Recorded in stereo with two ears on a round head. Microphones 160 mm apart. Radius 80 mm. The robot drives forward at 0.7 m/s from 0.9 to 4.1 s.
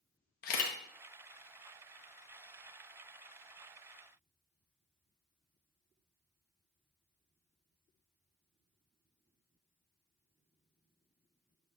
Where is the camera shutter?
50° left (ahead or behind), 1.0 m.